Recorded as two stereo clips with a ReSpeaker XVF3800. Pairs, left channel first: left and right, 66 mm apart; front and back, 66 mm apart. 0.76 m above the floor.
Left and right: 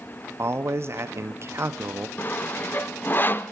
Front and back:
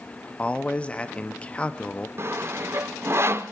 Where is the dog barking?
No dog barking in this recording.